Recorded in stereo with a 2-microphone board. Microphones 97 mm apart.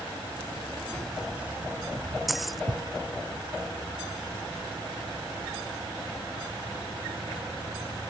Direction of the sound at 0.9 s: 10° left (ahead or behind).